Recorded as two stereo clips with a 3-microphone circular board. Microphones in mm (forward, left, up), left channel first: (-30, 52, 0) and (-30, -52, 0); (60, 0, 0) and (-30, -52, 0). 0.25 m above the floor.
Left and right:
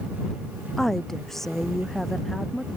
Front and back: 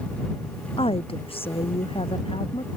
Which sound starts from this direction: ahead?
A woman speaking, at 0.8 s.